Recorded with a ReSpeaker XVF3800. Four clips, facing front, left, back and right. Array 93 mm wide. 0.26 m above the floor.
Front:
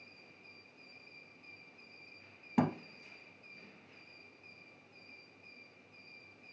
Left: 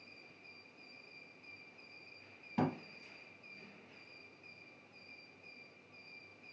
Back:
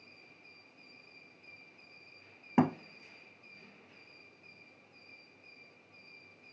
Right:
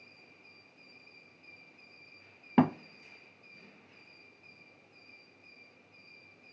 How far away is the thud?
About 0.5 m.